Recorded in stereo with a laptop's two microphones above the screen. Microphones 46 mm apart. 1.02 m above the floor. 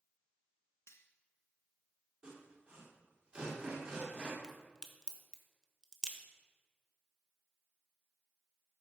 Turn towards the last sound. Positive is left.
turn(degrees=10)  # may be behind; listen again after turning